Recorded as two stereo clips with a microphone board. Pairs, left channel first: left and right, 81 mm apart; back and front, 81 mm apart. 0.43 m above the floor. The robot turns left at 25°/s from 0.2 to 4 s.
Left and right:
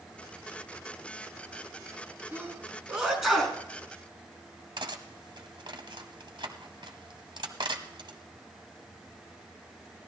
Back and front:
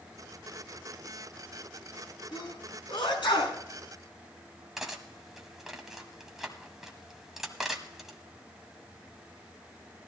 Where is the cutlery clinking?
85° right, 1.4 m.